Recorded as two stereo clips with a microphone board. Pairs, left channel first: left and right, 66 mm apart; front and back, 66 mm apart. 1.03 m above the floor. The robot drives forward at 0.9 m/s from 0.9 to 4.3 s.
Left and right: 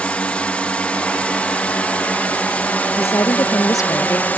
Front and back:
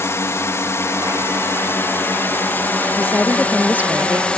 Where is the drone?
25° left; by 4.4 s 55° left.